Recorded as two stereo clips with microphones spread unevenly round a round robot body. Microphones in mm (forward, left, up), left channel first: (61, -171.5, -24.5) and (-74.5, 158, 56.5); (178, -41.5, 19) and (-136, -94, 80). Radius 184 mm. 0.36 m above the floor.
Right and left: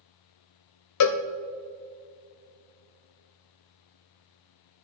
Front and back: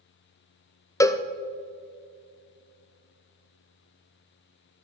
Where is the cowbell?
65° right, 0.7 m.